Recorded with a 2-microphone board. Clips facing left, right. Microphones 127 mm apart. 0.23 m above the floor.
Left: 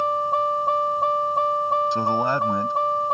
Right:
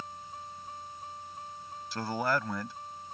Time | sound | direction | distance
0.0 | a vehicle | 75° left (ahead or behind) | ?
1.9 | a man speaking | 20° left (ahead or behind) | ?